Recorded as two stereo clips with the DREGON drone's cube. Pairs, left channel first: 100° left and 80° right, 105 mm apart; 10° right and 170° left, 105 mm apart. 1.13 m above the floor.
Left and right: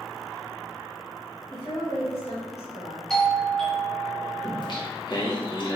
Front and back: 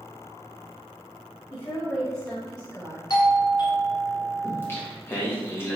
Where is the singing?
55° left, 1.0 m.